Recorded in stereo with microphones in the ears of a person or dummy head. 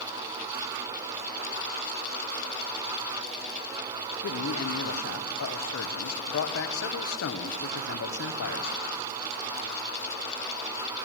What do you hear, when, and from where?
4.2 s a man speaking: 80° left, 1.3 m